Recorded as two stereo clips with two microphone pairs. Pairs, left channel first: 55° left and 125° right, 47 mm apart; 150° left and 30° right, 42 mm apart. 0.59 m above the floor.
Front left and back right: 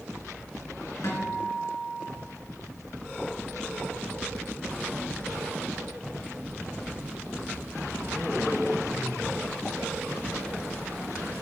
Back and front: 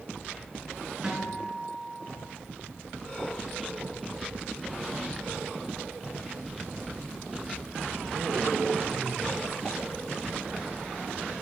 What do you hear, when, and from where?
1.0 s a guitar: 35° left, 3.5 m